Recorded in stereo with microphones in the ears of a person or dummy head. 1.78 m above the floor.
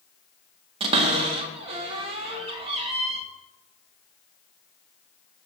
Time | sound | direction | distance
0.8 | a cupboard door | 35° right (ahead or behind) | 1.6 m